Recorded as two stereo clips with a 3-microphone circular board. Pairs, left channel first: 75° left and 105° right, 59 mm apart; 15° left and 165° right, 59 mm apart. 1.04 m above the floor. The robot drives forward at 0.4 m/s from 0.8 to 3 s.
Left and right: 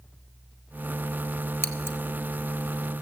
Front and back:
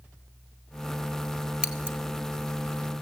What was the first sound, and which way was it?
Scissors, 120° left.